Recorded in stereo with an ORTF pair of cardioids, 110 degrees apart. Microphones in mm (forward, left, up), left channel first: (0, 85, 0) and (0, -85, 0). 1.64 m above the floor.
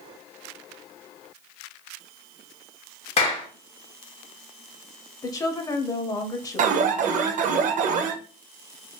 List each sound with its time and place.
3.2 s a clap: 40° left, 1.6 m
5.2 s a woman speaking: 20° left, 0.8 m
6.6 s an alarm: 50° right, 0.5 m